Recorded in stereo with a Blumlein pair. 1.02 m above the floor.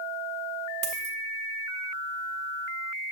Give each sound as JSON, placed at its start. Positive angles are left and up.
{"t": 0.8, "sound": "a dropped coin", "azimuth_deg": -45, "distance_m": 1.1}